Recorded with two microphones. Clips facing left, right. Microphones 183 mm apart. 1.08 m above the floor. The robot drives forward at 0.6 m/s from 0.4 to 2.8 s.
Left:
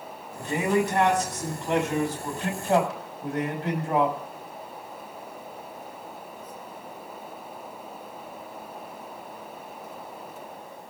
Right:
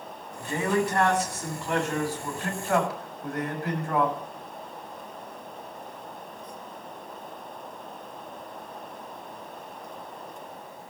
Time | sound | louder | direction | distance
0.4 | a man speaking | left 2 dB | 20° left (ahead or behind) | 7.5 m